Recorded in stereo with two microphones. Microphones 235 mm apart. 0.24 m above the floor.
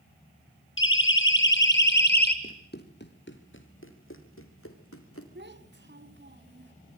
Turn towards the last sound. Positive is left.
turn(degrees=-50)  # may be behind; listen again after turning